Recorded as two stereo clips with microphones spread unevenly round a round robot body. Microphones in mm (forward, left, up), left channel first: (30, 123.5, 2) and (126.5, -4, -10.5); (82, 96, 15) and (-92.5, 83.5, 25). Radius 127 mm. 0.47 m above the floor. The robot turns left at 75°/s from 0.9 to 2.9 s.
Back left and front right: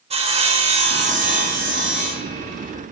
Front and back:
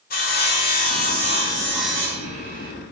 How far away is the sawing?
About 1.3 m.